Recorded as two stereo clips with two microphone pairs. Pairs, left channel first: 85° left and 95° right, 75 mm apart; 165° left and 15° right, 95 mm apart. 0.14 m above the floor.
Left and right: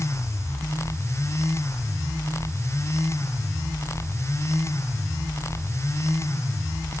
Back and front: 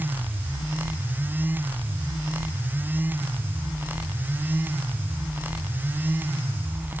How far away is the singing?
No singing in this recording.